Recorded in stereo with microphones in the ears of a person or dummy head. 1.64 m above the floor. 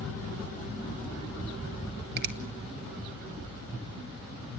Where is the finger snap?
55° right (ahead or behind), 2.5 m.